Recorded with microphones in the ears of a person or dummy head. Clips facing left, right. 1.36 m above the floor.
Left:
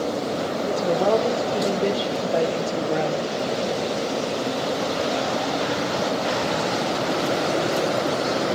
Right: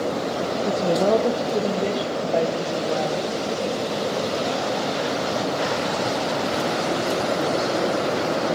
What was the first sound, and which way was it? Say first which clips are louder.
A woman speaking: right 1 dB; 25° right (ahead or behind).